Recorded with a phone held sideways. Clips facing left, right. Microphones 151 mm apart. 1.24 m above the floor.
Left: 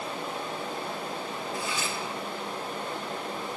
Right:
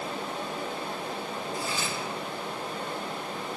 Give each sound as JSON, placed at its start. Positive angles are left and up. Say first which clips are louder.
{"t": 1.5, "sound": "cutlery clinking", "louder": "even", "side_deg": -35, "distance_m": 1.0}